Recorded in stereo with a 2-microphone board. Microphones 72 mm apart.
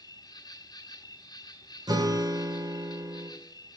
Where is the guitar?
70° right (ahead or behind), 2 m.